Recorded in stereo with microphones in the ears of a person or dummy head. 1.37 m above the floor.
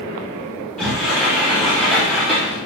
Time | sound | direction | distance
0.8 | a sliding door | 5° left (ahead or behind) | 1.4 m